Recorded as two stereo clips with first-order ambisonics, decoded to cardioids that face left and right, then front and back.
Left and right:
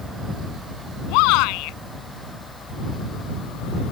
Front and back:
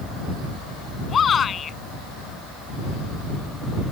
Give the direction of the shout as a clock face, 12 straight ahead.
10 o'clock.